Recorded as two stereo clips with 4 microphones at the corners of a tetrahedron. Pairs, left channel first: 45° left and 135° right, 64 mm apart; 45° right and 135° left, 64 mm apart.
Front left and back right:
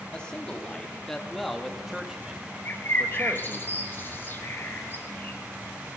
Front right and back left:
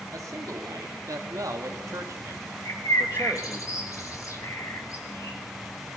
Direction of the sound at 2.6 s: 15° right.